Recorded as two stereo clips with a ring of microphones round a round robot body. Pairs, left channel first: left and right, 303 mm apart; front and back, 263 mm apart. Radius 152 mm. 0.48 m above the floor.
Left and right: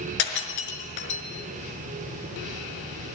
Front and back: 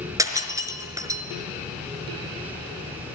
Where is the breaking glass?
100° left, 4.5 m.